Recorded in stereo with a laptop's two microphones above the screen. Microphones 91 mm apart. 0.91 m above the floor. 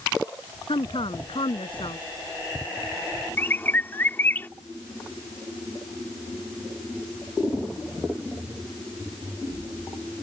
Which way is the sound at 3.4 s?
20° left (ahead or behind).